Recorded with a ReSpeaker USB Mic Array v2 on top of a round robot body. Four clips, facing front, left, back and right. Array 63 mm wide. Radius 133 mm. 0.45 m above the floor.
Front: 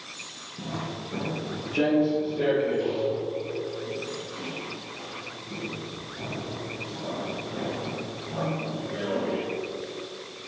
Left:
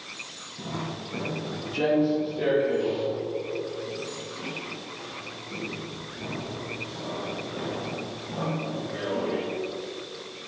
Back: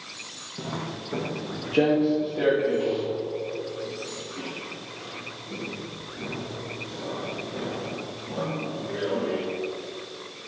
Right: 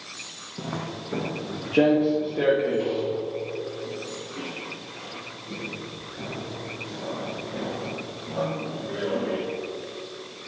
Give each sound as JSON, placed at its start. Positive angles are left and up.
{"t": 0.6, "sound": "footsteps", "azimuth_deg": -120, "distance_m": 1.8}